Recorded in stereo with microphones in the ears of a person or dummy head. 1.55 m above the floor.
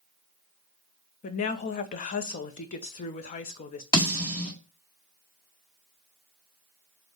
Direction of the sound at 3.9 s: 25° left (ahead or behind).